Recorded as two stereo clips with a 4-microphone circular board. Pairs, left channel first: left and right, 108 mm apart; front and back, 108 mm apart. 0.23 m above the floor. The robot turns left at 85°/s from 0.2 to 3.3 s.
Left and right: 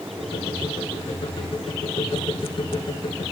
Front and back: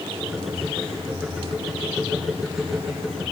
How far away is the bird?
I don't hear a bird.